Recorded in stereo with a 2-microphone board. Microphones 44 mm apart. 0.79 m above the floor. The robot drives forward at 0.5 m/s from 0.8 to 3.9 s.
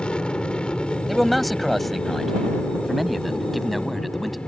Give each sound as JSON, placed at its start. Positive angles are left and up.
{"t": 0.0, "sound": "an aircraft", "side_deg": 20}
{"t": 1.1, "sound": "a man speaking", "side_deg": 0}